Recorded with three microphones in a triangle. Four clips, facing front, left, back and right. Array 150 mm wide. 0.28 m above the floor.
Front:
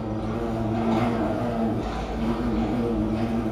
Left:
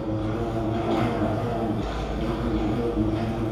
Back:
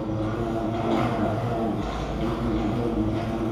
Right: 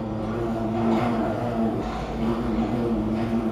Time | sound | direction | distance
0.0 | an insect | 165° left | 2 m